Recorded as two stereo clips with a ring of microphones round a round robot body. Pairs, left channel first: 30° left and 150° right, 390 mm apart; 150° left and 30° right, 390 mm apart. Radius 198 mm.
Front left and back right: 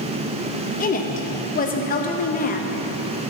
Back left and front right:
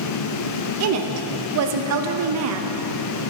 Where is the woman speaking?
25° right, 0.7 m.